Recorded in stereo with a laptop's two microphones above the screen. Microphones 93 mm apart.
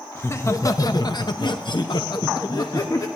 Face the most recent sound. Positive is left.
turn(degrees=40)  # may be behind; listen again after turning